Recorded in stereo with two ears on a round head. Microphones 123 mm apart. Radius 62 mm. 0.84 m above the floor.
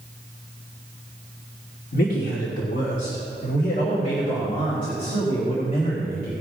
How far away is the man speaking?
About 1.7 m.